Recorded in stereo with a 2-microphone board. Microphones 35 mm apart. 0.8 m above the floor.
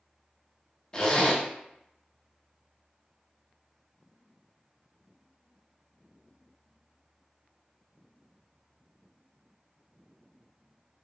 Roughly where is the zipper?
Left.